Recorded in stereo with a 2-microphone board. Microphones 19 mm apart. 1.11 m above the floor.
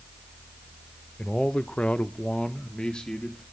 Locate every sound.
1.2 s a man speaking: 50° left (ahead or behind), 0.6 m; by 3.4 s 40° left (ahead or behind), 1.4 m